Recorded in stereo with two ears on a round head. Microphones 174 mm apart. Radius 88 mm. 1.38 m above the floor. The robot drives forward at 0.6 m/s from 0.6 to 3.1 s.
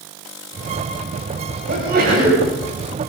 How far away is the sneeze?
About 9.5 m.